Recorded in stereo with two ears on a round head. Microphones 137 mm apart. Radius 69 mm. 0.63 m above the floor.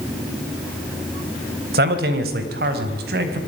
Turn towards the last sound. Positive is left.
turn(degrees=-75)  # may be behind; listen again after turning